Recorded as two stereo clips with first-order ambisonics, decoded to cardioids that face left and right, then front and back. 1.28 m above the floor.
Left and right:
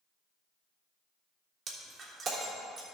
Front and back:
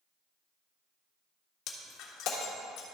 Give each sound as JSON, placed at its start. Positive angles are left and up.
{"t": 1.7, "sound": "breaking glass", "azimuth_deg": -30, "distance_m": 1.4}